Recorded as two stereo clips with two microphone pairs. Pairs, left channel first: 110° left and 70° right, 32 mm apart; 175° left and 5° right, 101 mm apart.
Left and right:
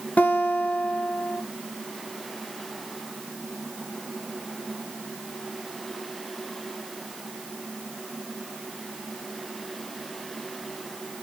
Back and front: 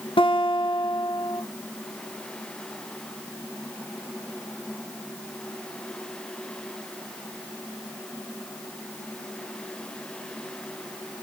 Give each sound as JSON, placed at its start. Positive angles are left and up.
{"t": 0.2, "sound": "a guitar", "azimuth_deg": 140, "distance_m": 1.7}